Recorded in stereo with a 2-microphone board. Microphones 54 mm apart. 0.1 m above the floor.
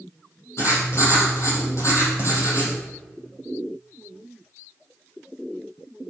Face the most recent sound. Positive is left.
turn(degrees=60)  # may be behind; listen again after turning